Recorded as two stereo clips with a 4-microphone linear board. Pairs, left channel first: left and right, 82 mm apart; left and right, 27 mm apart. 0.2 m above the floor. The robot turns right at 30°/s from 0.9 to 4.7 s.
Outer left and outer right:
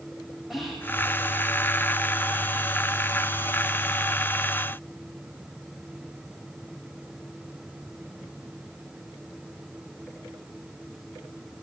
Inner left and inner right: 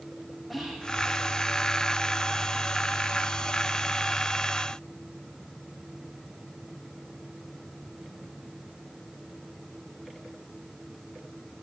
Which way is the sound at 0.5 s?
5° right (ahead or behind).